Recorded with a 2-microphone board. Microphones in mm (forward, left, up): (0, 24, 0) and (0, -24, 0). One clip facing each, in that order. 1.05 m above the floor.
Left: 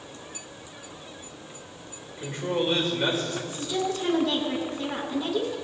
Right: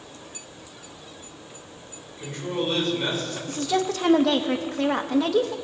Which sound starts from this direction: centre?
A man speaking, at 2.2 s.